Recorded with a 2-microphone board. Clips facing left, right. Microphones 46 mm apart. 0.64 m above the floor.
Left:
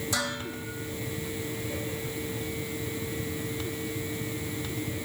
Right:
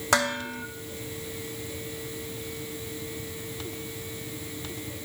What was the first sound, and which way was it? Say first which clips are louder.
Dishes clattering: right 10 dB; 75° right (ahead or behind).